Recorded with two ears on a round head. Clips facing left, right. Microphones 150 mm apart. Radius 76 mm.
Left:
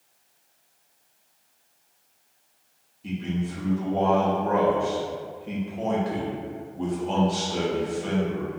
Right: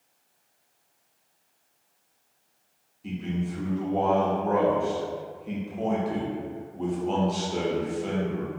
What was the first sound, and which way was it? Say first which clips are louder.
A man speaking: left 1 dB; centre (ahead or behind).